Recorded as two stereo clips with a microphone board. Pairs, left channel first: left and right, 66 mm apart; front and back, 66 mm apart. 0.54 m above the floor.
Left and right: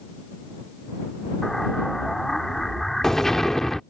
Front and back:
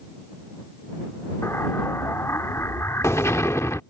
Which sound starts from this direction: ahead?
An explosion, at 1.4 s.